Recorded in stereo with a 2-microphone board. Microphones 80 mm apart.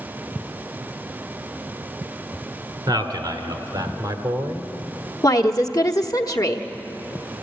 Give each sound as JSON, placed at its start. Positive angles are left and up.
{"t": 2.9, "sound": "a man speaking", "side_deg": -60, "distance_m": 2.5}
{"t": 5.2, "sound": "a woman speaking", "side_deg": 50, "distance_m": 1.2}